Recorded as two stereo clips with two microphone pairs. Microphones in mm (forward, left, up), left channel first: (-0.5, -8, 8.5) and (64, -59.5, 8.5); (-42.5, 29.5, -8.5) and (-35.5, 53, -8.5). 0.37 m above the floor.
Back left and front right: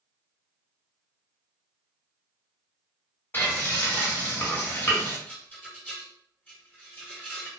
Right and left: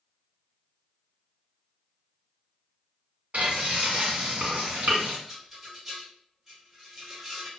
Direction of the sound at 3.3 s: 75° left.